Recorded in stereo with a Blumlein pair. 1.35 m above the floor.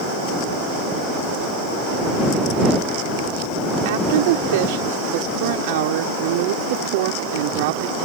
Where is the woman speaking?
50° right.